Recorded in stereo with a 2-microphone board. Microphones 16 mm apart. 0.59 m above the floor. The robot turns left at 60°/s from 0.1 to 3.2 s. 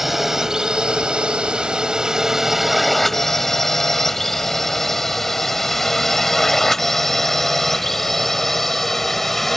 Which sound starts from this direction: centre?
A drone, at 0.0 s.